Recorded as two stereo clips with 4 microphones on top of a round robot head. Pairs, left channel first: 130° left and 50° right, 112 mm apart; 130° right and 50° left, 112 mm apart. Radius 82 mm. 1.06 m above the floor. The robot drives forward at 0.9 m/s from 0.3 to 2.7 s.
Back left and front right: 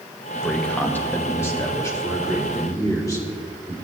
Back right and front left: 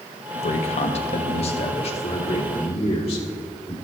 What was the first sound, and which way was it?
A man speaking, 145° right.